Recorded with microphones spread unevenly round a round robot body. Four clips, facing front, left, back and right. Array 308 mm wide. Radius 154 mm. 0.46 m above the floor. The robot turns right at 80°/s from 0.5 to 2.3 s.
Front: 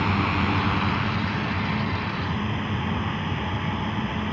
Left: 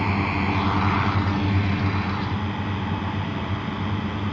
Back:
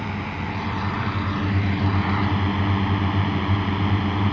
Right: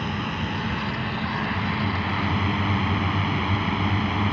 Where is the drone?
50° left; by 4.3 s 165° right.